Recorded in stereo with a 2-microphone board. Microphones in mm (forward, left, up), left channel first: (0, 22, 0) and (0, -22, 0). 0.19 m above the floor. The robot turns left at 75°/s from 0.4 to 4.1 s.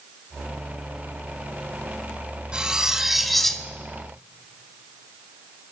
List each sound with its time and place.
2.5 s cutlery clinking: 20° right (ahead or behind), 0.7 m; by 3.7 s 10° left (ahead or behind), 0.7 m